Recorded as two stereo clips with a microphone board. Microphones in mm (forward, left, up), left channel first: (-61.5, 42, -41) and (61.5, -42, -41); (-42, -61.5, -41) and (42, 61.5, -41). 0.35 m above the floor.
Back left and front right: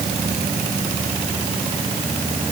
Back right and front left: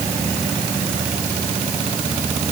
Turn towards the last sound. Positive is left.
No sound to turn to.